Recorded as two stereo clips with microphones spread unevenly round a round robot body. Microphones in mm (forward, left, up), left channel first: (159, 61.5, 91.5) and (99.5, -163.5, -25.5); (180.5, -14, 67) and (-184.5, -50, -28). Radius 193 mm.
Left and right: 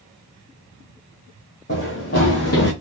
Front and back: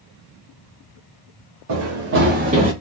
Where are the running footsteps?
135° left, 1.9 m; by 2.7 s 105° left, 1.3 m.